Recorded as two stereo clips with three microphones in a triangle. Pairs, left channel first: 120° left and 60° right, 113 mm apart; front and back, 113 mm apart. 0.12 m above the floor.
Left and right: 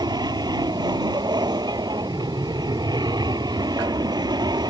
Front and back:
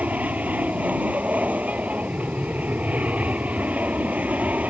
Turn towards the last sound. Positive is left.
turn(degrees=-105)